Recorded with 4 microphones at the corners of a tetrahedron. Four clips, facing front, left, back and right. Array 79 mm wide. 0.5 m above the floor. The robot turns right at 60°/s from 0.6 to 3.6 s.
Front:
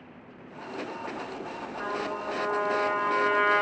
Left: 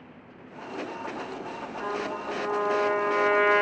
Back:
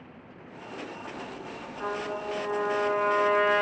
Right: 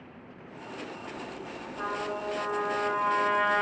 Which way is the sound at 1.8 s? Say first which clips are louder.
Left 1 dB, even; 55° right.